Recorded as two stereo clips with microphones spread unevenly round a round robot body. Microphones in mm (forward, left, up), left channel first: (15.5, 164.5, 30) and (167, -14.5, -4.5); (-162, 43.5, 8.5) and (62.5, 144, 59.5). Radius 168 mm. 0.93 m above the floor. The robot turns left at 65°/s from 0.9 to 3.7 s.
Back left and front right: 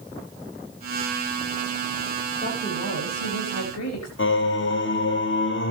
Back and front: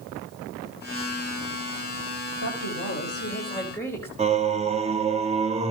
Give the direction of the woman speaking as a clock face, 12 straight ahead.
5 o'clock.